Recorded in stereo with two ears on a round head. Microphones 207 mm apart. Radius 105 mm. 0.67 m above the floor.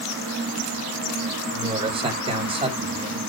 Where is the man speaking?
25° right (ahead or behind), 4.5 m.